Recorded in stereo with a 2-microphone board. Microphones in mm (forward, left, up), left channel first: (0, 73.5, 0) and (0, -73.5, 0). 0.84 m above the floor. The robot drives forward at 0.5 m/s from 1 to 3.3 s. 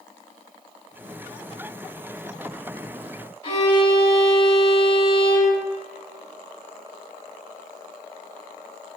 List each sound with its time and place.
3.4 s a violin: 40° left (ahead or behind), 1.2 m